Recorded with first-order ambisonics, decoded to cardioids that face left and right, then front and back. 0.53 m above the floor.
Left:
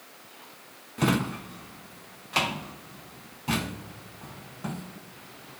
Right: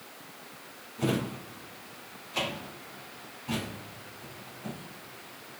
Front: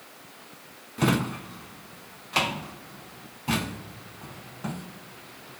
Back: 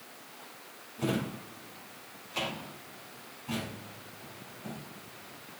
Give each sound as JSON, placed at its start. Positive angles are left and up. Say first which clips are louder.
{"t": 1.0, "sound": "a drawer", "louder": "left 4 dB, front 7 dB", "azimuth_deg": 45, "distance_m": 1.7}